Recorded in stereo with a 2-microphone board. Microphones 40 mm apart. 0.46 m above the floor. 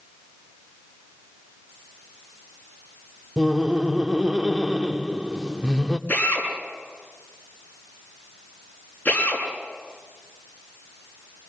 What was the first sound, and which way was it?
Laughter, 15° right (ahead or behind).